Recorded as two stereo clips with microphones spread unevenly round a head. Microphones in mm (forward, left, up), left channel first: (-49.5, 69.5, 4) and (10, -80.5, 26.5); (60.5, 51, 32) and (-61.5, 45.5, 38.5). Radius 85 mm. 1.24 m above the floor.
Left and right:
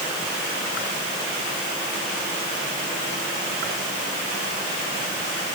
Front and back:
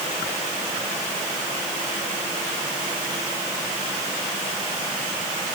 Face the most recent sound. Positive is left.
No sound to turn to.